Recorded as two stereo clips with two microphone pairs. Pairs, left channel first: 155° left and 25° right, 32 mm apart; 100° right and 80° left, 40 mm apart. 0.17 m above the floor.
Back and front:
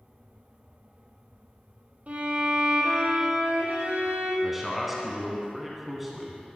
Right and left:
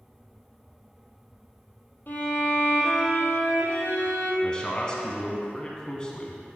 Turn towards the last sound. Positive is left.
turn(degrees=-100)